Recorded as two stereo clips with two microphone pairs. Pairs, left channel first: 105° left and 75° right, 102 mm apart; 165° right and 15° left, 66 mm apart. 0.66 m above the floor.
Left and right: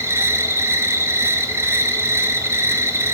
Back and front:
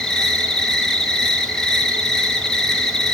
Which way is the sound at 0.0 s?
85° right.